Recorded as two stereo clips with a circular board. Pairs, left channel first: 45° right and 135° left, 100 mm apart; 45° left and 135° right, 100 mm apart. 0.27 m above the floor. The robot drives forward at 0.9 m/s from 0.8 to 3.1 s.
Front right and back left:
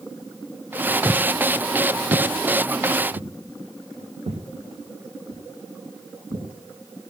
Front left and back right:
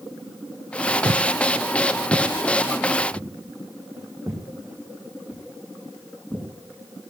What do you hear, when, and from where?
1.1 s footsteps: 130° right, 0.5 m; by 6.5 s 130° left, 3.5 m